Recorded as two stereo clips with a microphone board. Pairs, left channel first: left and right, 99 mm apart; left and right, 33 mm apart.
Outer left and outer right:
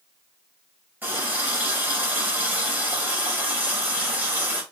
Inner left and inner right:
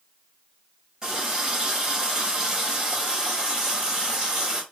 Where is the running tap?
20° right (ahead or behind), 1.6 m.